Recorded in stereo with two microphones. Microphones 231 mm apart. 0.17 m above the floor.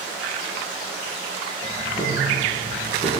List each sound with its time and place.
1.6 s ticking: 25° left (ahead or behind), 3 m